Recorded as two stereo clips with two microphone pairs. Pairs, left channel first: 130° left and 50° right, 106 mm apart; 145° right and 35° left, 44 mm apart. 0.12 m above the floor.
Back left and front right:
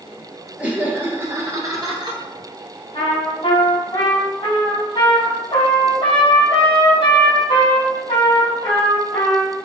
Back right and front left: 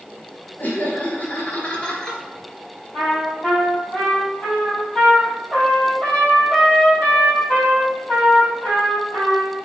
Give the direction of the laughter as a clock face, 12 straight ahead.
4 o'clock.